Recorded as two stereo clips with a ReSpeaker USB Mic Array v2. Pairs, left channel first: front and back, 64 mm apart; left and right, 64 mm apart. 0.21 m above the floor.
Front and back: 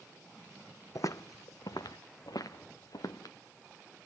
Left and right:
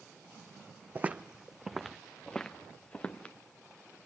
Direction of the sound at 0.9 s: 30° right.